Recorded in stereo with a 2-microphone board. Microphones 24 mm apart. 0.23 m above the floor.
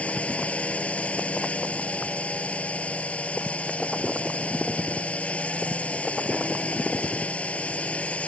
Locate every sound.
0.0 s a drone: 65° left (ahead or behind)